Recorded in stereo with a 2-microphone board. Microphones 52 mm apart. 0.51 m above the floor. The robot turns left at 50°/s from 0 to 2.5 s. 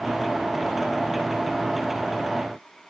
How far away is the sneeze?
No sneeze in this recording.